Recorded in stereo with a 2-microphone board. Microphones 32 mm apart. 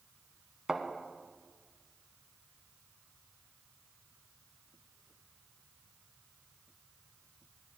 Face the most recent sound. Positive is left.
turn(degrees=-20)  # may be behind; listen again after turning